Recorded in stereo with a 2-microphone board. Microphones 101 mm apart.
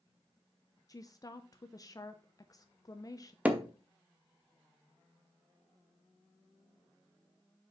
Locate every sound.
0.9 s a woman speaking: 35° left (ahead or behind), 0.5 m
3.5 s hammering: 15° right (ahead or behind), 0.9 m